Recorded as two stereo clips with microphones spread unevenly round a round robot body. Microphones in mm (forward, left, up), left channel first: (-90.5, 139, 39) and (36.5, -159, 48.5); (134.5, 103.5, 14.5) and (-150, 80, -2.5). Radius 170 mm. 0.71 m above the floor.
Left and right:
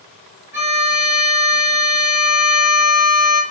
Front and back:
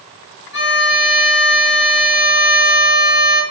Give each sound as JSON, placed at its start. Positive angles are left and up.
{"t": 0.5, "sound": "a violin", "azimuth_deg": 15, "distance_m": 1.3}